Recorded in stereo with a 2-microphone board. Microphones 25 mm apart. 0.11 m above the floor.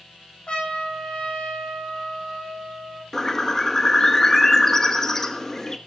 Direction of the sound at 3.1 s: 20° left (ahead or behind).